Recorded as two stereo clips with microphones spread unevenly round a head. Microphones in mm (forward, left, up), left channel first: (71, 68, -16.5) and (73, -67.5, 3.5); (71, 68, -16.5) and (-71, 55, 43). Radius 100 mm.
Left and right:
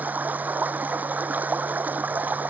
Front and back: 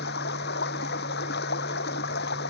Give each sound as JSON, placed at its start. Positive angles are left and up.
{"t": 0.0, "sound": "running water", "azimuth_deg": -10}